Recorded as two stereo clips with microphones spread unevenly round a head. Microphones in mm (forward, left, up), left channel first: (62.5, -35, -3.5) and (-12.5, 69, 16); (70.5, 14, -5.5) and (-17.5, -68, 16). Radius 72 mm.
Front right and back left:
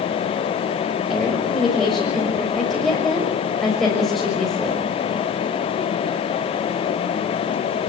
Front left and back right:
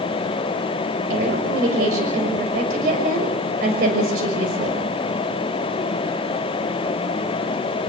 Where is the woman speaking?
145° right, 6 m.